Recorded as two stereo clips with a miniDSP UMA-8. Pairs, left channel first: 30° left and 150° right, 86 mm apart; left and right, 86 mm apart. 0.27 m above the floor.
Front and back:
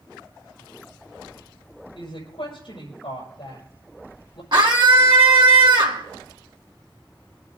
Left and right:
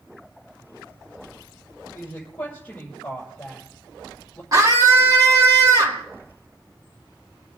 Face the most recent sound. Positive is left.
turn(degrees=-130)